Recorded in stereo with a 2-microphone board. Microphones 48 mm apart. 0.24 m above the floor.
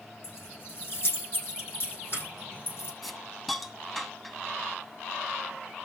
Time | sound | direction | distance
0.2 | keys jangling | 50° left (ahead or behind) | 8 m
3.0 | a hiss | 5° left (ahead or behind) | 1.4 m